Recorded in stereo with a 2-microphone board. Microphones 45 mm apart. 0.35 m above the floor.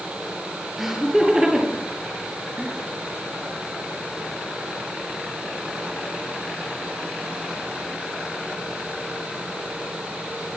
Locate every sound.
0.8 s laughter: 10° right (ahead or behind), 9 m; by 2.8 s 15° right (ahead or behind), 7.5 m